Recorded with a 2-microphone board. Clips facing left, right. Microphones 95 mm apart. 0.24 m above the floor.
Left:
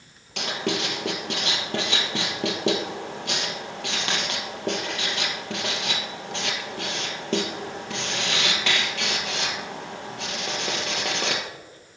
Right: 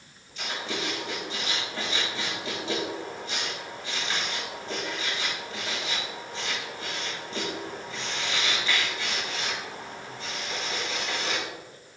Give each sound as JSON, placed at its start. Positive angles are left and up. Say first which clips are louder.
{"t": 0.4, "sound": "writing", "louder": "left 6 dB", "side_deg": 75, "distance_m": 2.5}